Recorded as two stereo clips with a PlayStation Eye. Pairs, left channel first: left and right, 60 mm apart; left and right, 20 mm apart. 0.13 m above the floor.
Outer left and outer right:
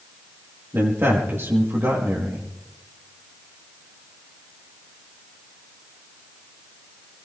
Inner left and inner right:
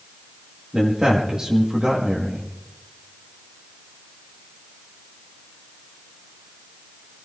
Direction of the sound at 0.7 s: 45° right (ahead or behind).